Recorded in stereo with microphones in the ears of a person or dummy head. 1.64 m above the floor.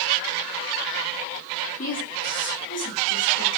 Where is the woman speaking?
40° left (ahead or behind), 4.5 m.